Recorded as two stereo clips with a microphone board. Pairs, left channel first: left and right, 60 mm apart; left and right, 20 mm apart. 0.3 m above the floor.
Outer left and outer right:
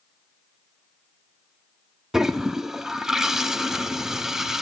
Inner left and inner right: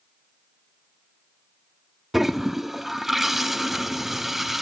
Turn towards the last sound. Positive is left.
turn(degrees=-10)  # may be behind; listen again after turning